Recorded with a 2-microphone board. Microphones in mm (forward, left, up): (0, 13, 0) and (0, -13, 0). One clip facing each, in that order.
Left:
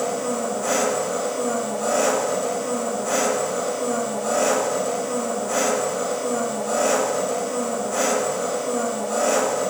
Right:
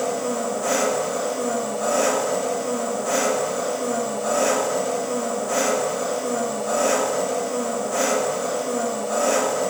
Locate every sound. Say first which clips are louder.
0.0 s an engine running: even; 5° right (ahead or behind), 0.9 m